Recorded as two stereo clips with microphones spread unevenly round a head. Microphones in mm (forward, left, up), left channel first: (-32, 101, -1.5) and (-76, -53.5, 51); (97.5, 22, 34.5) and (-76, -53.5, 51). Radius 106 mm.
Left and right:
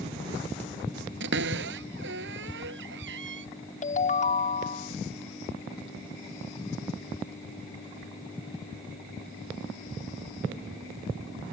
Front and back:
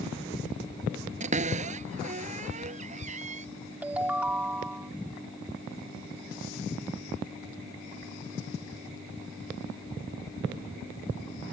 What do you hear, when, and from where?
1.2 s a cupboard door: 105° right
3.8 s a ringtone: 120° left